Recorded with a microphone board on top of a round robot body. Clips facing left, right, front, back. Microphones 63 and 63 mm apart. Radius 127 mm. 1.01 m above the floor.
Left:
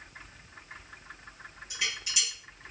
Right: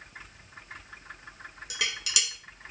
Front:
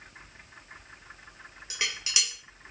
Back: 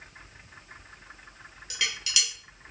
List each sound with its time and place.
1.7 s dishes clattering: 65° right, 0.7 m